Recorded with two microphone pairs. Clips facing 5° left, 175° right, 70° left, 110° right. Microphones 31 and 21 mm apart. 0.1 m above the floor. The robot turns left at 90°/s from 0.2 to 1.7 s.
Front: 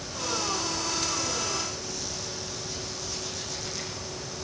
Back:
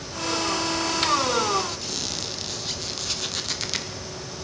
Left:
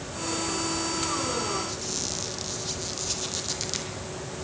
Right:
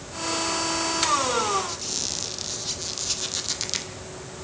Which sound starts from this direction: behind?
A squeak, at 1.7 s.